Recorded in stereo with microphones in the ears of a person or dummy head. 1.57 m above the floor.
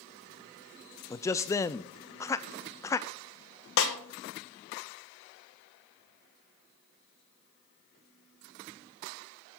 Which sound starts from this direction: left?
A snare drum, at 3.8 s.